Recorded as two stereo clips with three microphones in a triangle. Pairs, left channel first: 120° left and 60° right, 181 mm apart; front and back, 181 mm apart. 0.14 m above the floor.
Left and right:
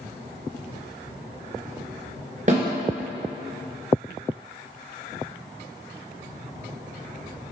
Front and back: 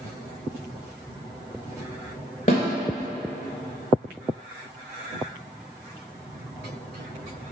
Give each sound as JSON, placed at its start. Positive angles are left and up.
{"t": 2.5, "sound": "a snare drum", "azimuth_deg": -35, "distance_m": 1.6}